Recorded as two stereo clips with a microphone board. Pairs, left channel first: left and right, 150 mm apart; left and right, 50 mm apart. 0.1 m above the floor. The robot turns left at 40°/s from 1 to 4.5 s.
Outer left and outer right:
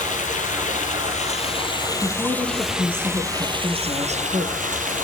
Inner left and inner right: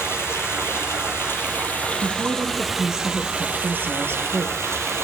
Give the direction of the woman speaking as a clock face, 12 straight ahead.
11 o'clock.